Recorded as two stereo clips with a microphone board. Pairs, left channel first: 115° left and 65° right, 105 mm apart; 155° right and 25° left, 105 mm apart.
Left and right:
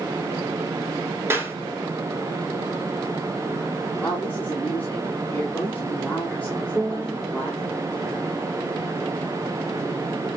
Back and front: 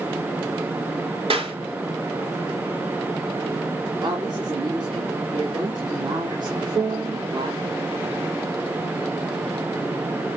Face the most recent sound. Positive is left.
turn(degrees=30)